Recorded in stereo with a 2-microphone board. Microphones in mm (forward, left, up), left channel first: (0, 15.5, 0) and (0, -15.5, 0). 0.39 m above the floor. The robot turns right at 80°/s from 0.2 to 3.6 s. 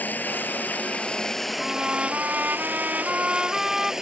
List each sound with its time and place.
0.0 s running water: 70° left; by 4.0 s 20° right
1.6 s a trumpet: straight behind; by 3.9 s 20° right